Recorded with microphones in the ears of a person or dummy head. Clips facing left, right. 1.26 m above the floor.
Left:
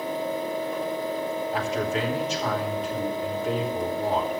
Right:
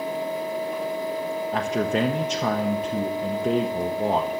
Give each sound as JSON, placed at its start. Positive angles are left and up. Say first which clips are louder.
{"t": 0.0, "sound": "a fan", "louder": "right 1 dB", "side_deg": -10, "distance_m": 1.8}
{"t": 1.5, "sound": "a man speaking", "louder": "right 5 dB", "side_deg": -50, "distance_m": 0.8}